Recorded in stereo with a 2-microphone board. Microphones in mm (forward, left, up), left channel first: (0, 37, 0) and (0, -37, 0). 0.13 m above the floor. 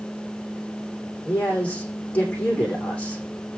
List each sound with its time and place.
1.2 s a man speaking: 20° left (ahead or behind), 8 m